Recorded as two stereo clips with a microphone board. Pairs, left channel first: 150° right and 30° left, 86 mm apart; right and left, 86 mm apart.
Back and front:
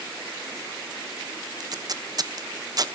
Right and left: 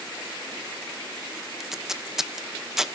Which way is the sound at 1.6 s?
5° left.